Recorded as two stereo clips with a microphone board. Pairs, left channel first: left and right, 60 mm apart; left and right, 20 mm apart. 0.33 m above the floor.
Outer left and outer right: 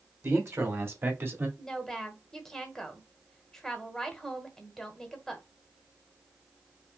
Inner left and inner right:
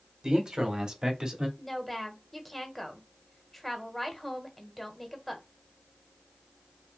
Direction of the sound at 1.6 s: 5° left (ahead or behind).